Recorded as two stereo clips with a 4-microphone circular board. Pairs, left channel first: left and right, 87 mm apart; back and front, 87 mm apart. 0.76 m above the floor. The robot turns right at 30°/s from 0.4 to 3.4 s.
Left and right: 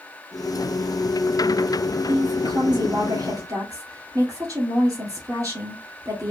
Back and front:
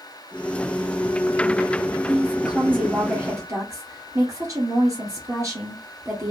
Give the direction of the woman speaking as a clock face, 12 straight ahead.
3 o'clock.